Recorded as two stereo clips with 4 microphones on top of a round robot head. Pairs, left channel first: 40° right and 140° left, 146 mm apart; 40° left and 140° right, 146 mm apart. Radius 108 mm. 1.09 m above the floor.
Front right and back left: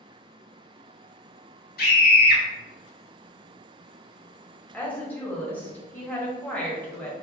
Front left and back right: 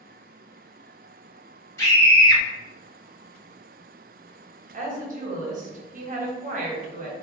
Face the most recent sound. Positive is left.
turn(degrees=-115)